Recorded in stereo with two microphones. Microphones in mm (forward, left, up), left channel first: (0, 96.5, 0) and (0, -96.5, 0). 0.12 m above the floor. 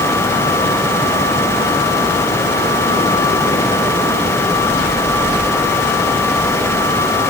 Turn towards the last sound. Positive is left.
No sound to turn to.